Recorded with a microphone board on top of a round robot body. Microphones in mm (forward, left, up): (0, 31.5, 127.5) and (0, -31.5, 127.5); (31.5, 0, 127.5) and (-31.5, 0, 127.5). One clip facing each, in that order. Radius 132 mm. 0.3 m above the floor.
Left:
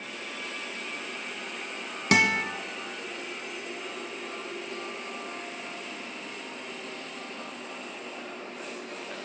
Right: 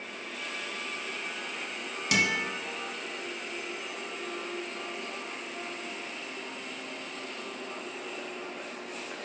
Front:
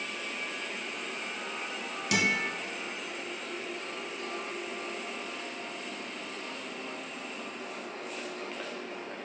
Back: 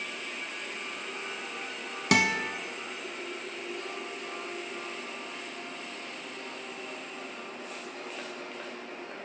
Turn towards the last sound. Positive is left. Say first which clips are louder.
# left 5 dB, back 3 dB
turn(degrees=140)